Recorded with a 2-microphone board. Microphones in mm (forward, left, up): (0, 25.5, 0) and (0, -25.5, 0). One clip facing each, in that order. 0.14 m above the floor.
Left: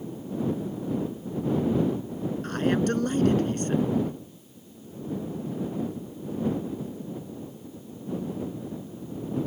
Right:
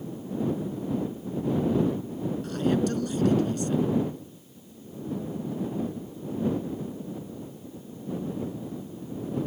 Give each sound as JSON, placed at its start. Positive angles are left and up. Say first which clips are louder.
{"t": 2.4, "sound": "a man speaking", "louder": "left 1 dB", "side_deg": 45}